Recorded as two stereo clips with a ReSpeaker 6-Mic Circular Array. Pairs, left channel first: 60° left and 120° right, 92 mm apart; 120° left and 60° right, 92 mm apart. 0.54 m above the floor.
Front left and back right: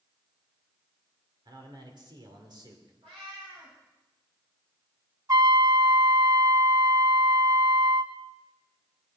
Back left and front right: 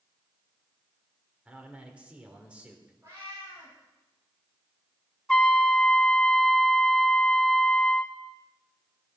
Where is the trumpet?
160° right, 0.6 m.